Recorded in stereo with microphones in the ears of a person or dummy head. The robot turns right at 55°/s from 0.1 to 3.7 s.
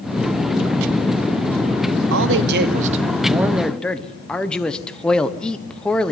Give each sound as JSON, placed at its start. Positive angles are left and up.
{"t": 2.1, "sound": "a man speaking", "azimuth_deg": -85, "distance_m": 1.2}